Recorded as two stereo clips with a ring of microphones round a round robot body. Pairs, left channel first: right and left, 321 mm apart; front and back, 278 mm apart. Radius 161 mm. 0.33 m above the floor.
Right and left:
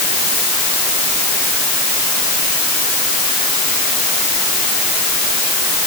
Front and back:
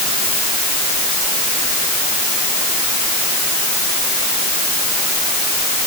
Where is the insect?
No insect in this recording.